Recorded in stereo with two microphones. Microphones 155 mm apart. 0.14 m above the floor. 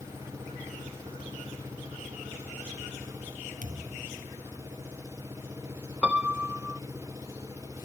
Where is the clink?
No clink in this recording.